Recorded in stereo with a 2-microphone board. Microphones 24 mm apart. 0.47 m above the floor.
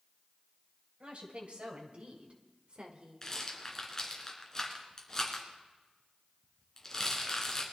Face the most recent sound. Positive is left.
turn(degrees=20)  # may be behind; listen again after turning